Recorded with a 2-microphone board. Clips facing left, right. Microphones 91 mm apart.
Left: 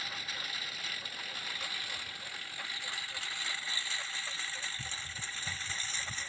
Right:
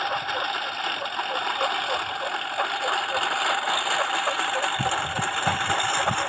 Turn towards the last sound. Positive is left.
turn(degrees=-90)